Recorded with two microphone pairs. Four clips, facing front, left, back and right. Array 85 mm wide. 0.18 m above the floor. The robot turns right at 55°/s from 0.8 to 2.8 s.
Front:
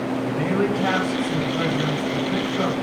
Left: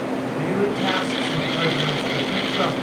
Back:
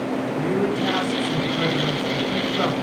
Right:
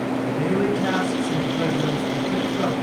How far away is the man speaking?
About 1.2 m.